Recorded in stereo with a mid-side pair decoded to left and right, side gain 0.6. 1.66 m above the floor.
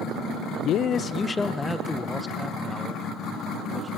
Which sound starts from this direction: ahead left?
A man speaking, at 0.6 s.